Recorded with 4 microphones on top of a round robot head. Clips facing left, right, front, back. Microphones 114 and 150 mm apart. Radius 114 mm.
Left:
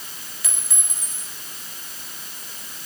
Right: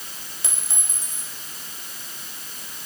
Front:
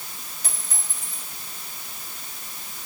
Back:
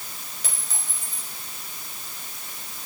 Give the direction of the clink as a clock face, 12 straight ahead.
5 o'clock.